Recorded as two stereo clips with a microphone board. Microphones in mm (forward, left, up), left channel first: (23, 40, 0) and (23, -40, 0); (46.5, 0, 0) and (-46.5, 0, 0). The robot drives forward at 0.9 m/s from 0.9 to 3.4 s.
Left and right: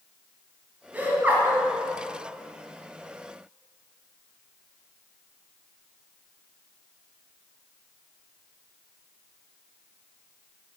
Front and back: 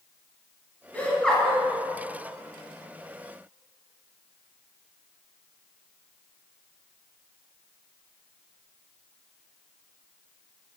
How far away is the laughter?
About 1.8 m.